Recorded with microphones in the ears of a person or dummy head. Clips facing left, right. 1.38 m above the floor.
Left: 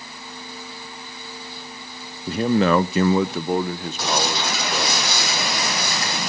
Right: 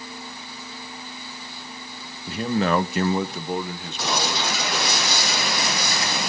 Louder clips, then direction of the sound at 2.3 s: Left 4 dB; 35° left (ahead or behind).